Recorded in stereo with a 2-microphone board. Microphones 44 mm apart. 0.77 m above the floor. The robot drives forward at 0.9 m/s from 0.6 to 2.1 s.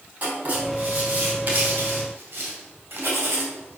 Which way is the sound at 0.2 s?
40° right (ahead or behind).